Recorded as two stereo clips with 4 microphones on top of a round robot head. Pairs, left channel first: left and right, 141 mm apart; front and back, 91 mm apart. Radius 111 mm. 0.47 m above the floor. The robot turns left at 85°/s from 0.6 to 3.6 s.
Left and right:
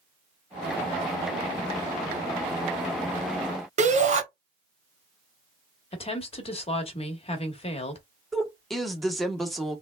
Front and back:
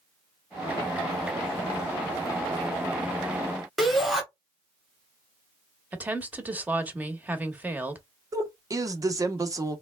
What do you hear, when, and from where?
3.8 s a shout: 90° right, 1.3 m
5.9 s a woman speaking: 115° left, 1.2 m
8.3 s a woman speaking: straight behind, 0.9 m